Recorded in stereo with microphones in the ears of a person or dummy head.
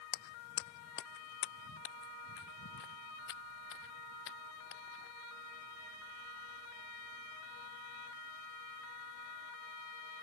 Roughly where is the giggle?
I don't hear a giggle.